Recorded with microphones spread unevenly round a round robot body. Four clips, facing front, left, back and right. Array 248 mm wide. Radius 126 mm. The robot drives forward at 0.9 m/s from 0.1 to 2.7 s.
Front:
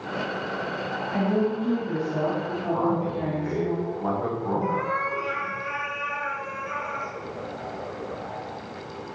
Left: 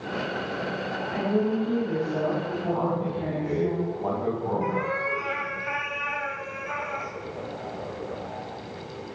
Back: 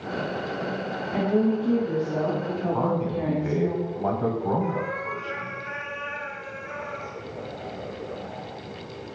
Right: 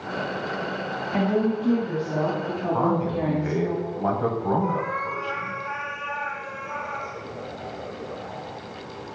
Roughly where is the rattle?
I don't hear a rattle.